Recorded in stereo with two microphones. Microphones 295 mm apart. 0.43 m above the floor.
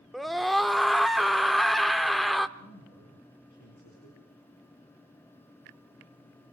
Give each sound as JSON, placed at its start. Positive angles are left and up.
{"t": 0.1, "sound": "a scream", "side_deg": 0, "distance_m": 0.8}
{"t": 2.6, "sound": "a man speaking", "side_deg": 75, "distance_m": 7.5}